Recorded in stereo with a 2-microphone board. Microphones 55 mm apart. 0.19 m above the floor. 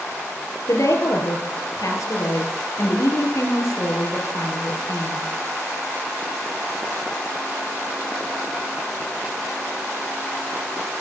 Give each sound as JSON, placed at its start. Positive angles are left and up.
{"t": 0.7, "sound": "a woman speaking", "side_deg": 70, "distance_m": 4.0}